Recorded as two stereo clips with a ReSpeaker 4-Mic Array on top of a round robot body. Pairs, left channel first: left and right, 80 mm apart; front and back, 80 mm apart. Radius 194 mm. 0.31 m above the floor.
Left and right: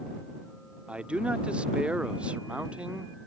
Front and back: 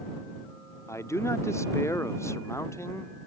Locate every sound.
0.9 s a man speaking: 25° right